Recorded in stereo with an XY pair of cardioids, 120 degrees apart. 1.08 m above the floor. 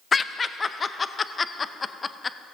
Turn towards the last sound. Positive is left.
turn(degrees=25)